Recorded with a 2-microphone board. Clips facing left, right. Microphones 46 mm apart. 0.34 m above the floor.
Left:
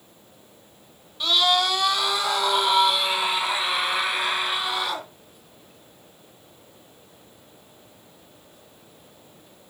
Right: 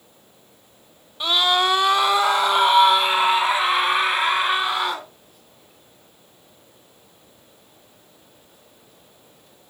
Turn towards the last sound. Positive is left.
turn(degrees=-35)  # may be behind; listen again after turning